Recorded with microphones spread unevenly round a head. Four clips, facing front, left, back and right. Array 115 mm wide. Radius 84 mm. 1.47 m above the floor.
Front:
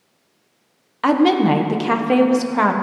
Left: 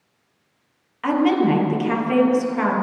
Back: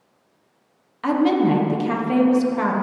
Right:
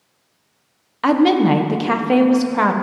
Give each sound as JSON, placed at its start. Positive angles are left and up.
{"t": 1.0, "sound": "a woman speaking", "azimuth_deg": -35, "distance_m": 1.2}